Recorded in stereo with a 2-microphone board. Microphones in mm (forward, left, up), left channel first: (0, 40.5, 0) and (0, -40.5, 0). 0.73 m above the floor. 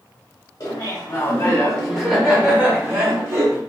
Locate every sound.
0.6 s laughter: 40° left (ahead or behind), 1.1 m; by 3.6 s 35° right (ahead or behind), 1.5 m